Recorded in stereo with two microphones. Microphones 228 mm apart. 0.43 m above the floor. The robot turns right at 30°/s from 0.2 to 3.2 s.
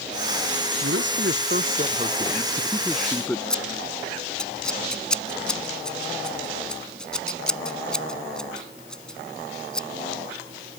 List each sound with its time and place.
0.8 s a man speaking: 65° right; by 3.4 s 5° left
3.5 s scissors: 5° left (ahead or behind)